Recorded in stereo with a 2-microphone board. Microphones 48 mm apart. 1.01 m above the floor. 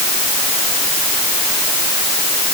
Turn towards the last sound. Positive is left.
No sound to turn to.